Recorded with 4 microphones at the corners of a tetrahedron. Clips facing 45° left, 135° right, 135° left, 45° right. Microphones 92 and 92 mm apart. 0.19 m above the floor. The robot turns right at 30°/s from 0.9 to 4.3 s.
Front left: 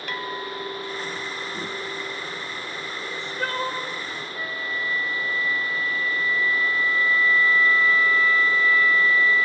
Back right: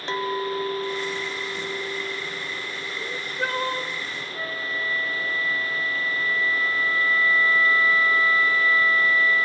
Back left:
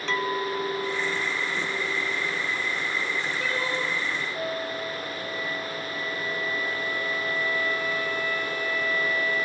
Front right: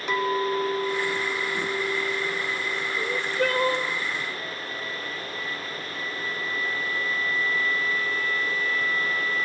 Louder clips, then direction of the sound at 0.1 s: Back right 6 dB, front right 3 dB; 105° right.